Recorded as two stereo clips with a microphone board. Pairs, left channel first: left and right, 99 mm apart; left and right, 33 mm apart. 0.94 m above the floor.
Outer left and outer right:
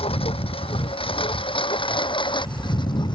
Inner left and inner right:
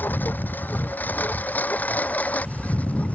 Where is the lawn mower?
75° left (ahead or behind); by 3.1 s 50° left (ahead or behind).